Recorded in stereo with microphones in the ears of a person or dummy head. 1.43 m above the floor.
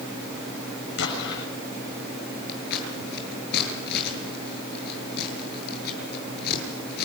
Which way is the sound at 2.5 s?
55° left (ahead or behind).